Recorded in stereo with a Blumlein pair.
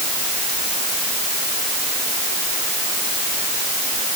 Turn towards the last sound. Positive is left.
No sound to turn to.